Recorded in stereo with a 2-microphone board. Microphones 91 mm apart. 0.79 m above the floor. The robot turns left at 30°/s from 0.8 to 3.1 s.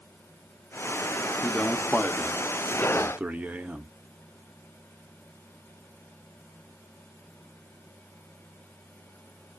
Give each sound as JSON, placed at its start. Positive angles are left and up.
{"t": 1.4, "sound": "a man speaking", "azimuth_deg": 30, "distance_m": 0.6}